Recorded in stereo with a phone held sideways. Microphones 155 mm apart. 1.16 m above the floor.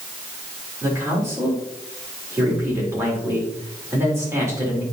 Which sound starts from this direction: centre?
A man speaking, at 0.8 s.